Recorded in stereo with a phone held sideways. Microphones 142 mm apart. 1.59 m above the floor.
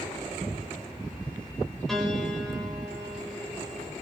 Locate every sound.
1.9 s a piano: centre (ahead or behind), 7 m